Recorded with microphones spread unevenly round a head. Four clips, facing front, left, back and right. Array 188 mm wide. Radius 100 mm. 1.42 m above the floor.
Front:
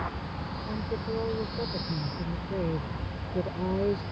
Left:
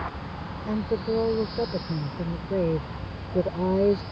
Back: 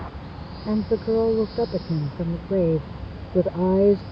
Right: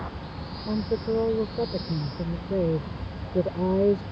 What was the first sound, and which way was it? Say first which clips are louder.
A woman speaking: even, back 12 dB; straight behind.